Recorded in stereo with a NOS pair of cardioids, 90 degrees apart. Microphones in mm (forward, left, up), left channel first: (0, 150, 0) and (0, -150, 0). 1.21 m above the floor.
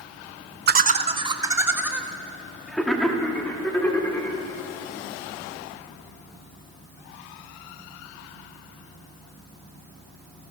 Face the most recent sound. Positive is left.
turn(degrees=5)